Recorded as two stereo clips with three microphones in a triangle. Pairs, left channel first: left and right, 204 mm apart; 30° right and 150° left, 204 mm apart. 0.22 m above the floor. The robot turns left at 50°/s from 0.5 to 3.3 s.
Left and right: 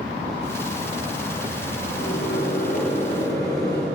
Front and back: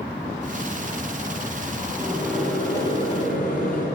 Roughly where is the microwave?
Left.